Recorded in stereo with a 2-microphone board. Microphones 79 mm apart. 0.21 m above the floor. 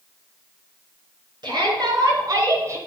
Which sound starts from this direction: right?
A shout, at 1.4 s.